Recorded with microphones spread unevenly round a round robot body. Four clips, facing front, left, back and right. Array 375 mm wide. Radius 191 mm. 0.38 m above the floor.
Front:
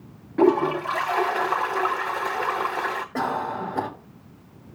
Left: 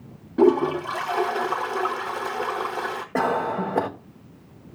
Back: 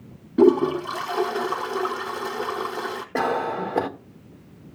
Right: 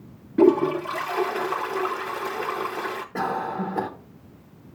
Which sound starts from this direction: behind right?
A toilet flushing, at 0.4 s.